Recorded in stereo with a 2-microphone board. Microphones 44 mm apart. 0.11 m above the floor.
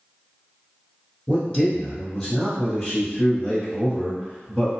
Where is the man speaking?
15° left (ahead or behind), 2.0 m.